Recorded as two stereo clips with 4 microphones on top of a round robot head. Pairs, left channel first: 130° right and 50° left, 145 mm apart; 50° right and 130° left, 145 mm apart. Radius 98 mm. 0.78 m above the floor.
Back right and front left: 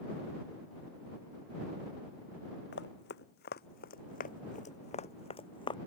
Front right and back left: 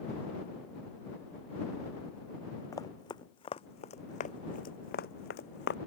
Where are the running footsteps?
120° right; by 5.8 s 70° right.